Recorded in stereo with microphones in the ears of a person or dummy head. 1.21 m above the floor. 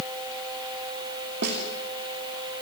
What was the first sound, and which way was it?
A snare drum, 60° right (ahead or behind).